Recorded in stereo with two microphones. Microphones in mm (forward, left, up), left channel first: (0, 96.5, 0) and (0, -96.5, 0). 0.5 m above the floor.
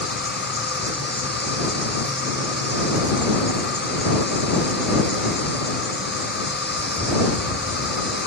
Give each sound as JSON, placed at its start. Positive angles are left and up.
{"t": 0.0, "sound": "an insect", "side_deg": 75}